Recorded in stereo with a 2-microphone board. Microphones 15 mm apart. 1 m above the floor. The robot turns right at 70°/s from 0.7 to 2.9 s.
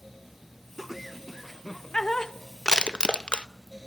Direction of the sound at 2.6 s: 45° left (ahead or behind).